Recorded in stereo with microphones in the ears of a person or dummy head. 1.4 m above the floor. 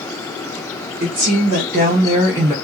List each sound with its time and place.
1.0 s a woman speaking: 70° right (ahead or behind), 1.6 m; by 2.5 s 5° right (ahead or behind), 0.9 m